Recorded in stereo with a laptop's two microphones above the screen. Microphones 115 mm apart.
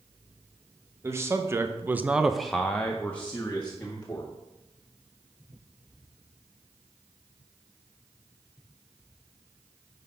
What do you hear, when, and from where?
1.0 s a man speaking: 25° right (ahead or behind), 1.0 m; by 4.3 s 15° left (ahead or behind), 2.0 m